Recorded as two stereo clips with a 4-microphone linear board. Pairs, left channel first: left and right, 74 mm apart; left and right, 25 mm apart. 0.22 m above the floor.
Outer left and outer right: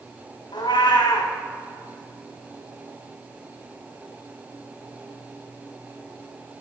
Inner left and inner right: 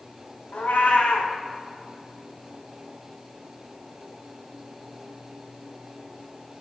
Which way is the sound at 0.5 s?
85° left.